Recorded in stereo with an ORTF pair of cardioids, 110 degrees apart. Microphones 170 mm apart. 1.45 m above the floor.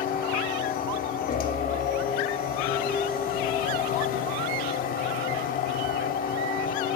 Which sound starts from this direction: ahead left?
A machine running, at 0.0 s.